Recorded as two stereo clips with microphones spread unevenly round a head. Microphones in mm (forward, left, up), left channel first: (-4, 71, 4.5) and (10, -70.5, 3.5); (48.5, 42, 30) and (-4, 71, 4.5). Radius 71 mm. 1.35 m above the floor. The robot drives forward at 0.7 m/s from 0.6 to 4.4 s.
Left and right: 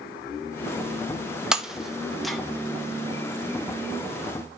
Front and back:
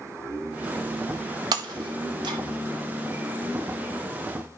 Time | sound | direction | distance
1.5 | breaking glass | 170° right | 0.7 m